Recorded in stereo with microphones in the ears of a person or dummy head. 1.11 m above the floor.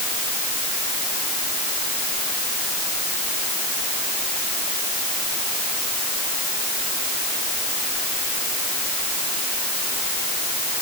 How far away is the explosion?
No explosion in this recording.